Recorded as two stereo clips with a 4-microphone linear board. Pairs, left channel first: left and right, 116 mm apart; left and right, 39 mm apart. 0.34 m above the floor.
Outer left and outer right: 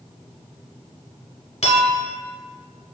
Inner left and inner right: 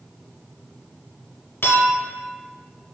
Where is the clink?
55° left (ahead or behind), 0.9 m.